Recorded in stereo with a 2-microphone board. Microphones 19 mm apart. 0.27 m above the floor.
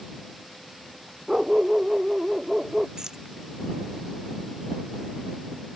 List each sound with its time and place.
1.3 s a dog barking: 30° right (ahead or behind); by 2.9 s 25° right (ahead or behind)
3.0 s keys jangling: 30° right (ahead or behind)